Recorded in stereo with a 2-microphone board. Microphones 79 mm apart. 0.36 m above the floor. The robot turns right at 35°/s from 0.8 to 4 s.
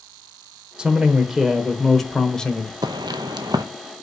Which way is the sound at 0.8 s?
10° right (ahead or behind).